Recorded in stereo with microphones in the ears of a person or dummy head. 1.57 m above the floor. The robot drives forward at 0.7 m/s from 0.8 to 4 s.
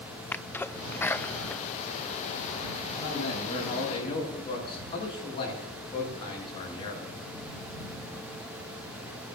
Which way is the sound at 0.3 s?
5° left (ahead or behind).